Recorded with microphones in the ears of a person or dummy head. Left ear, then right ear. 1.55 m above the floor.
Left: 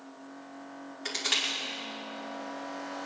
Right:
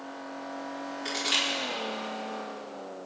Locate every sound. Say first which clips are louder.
1.1 s crushing: right 1 dB; 25° left (ahead or behind), 3 m